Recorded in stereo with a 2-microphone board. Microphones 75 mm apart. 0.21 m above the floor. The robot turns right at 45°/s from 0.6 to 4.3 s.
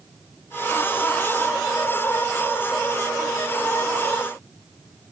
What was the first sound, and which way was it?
Only background noise.